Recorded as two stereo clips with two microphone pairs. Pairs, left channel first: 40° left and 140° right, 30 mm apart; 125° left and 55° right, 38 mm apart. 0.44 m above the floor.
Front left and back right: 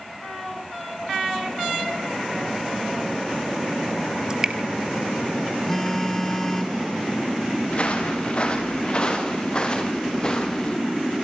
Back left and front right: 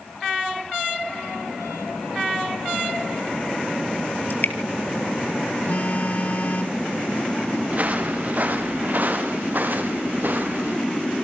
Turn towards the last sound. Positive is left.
turn(degrees=-20)